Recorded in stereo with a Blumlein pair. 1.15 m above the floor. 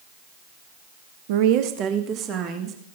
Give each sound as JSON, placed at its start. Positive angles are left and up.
{"t": 1.3, "sound": "a woman speaking", "azimuth_deg": -50, "distance_m": 1.1}